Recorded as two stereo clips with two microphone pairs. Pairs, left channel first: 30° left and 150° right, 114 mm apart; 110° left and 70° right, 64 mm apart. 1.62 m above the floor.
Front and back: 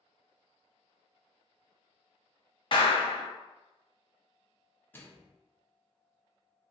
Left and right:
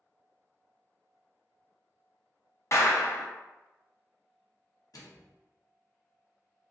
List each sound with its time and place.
2.7 s a clap: 70° left, 0.6 m
4.9 s a microwave: 100° left, 0.6 m